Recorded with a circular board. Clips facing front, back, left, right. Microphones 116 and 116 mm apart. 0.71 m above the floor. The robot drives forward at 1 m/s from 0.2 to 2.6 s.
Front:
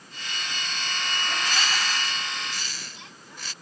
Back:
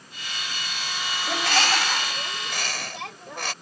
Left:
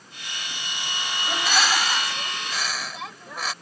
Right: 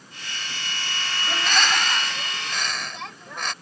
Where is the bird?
170° left; by 3.5 s 175° left.